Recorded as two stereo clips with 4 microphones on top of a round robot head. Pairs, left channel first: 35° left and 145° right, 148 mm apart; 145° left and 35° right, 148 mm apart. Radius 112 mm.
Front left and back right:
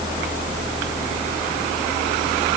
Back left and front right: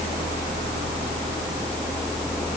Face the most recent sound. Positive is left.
No sound to turn to.